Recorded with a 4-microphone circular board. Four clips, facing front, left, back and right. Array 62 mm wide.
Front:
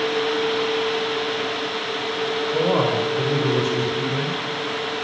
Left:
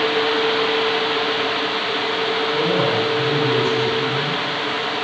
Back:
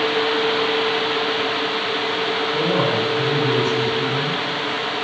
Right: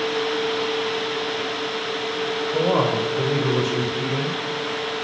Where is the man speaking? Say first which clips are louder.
Right 1 dB, front 1 dB; 55° right, 4.5 m.